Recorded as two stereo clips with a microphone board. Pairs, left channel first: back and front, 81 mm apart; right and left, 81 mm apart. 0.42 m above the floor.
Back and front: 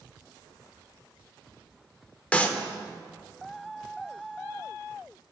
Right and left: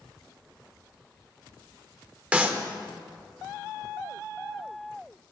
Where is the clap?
135° left, 0.7 m.